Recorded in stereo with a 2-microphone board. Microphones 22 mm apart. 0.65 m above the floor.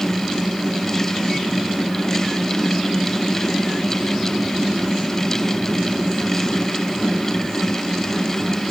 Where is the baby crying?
I don't hear a baby crying.